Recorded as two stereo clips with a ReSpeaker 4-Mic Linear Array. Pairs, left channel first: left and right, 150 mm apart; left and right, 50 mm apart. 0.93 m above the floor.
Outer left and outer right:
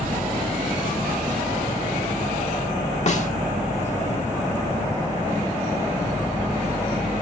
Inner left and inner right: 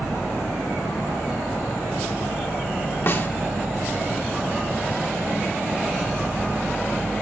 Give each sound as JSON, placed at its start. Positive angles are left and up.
{"t": 3.1, "sound": "a snare drum", "side_deg": 50, "distance_m": 1.4}